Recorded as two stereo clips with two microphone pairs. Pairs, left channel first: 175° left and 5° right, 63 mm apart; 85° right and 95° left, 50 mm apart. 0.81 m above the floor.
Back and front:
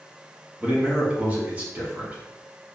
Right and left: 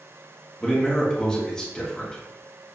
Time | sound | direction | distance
0.6 | a man speaking | 35° right | 1.0 m